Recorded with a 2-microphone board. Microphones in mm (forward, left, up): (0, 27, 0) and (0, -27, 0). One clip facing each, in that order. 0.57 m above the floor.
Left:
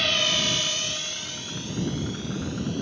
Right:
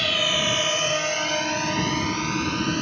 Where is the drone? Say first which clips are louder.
Right 2 dB; centre (ahead or behind); by 2.8 s 75° right (ahead or behind).